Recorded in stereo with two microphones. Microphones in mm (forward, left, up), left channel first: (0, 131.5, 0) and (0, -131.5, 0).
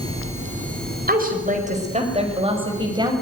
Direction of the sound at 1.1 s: 35° right (ahead or behind).